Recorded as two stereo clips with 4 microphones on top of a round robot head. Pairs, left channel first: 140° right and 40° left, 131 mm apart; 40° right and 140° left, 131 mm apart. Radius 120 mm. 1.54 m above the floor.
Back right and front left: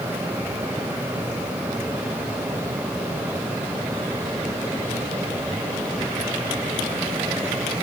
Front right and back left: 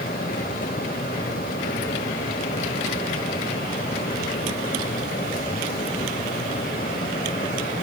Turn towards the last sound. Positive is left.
No sound to turn to.